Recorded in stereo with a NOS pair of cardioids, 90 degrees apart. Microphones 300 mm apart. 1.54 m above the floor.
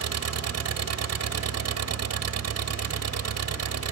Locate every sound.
0.0 s an engine running: 60° right